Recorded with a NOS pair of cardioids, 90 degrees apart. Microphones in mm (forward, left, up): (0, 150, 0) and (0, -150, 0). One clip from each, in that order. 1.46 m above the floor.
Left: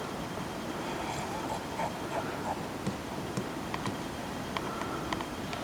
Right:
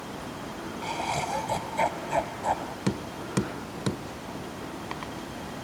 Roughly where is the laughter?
Ahead right.